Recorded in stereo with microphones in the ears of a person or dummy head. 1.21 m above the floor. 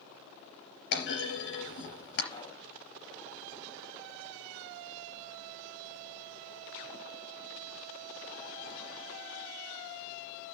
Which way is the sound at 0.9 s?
70° left (ahead or behind).